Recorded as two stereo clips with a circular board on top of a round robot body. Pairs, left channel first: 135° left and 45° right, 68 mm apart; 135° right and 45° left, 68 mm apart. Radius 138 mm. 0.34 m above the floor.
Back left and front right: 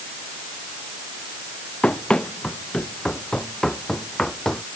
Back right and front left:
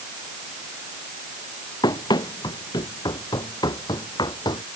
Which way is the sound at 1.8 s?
145° right.